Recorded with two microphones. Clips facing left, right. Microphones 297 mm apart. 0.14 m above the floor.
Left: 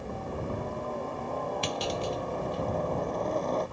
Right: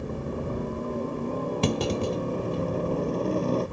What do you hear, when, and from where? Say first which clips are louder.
0.0 s a helicopter: right 4 dB; 35° right (ahead or behind)
1.6 s a clunk: right 7 dB; 60° right (ahead or behind)